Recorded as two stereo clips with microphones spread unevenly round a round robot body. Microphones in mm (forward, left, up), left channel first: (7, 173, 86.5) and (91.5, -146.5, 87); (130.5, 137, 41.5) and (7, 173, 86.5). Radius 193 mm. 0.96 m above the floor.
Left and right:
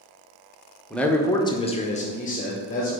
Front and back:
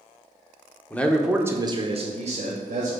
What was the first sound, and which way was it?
A man speaking, 20° left.